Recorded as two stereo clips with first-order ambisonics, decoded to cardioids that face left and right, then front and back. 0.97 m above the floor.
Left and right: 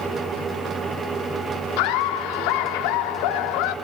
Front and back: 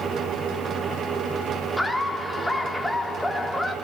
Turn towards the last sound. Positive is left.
turn(degrees=85)